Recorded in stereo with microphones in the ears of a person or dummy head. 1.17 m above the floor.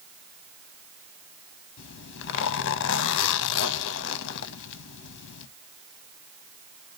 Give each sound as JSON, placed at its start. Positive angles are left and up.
{"t": 1.8, "sound": "a zipper", "side_deg": 65, "distance_m": 0.7}